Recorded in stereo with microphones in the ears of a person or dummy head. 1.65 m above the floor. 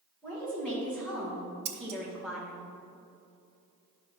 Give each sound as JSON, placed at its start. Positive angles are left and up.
{"t": 0.2, "sound": "a woman speaking", "side_deg": 10, "distance_m": 3.5}
{"t": 1.6, "sound": "scissors", "side_deg": -75, "distance_m": 1.5}